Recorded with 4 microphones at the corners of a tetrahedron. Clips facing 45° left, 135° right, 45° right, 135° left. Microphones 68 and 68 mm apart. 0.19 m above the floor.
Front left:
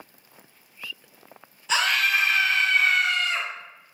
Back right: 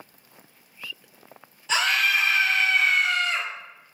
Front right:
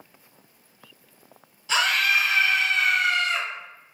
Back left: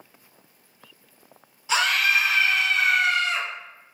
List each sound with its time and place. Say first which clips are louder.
1.7 s a scream: even, back left 1 dB; 135° left, 1.5 m